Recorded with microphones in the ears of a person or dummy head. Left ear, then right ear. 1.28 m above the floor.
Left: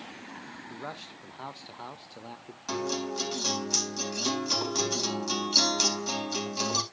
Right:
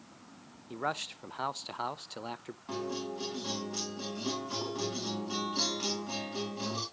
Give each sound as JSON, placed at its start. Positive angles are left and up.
{"t": 0.7, "sound": "a man speaking", "side_deg": -45, "distance_m": 0.6}
{"t": 2.7, "sound": "a guitar", "side_deg": 75, "distance_m": 3.5}